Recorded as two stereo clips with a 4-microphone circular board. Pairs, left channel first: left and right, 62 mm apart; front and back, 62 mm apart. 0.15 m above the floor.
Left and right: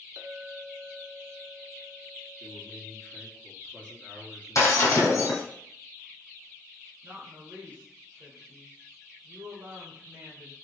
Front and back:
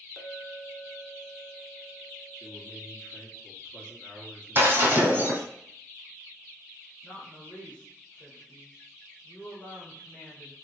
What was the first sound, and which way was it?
A clink, 85° right.